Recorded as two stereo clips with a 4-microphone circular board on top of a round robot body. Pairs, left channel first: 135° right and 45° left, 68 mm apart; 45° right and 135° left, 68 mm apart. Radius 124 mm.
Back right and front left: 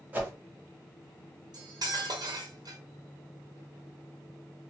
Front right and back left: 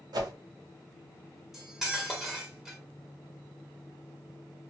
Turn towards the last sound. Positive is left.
turn(degrees=50)